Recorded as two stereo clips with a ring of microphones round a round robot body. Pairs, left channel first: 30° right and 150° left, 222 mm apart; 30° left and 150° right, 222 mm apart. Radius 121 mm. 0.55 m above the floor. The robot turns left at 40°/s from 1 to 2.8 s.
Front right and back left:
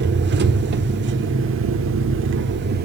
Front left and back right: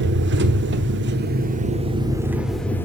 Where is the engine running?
Straight behind, 1.5 m; by 2.9 s 110° left, 1.5 m.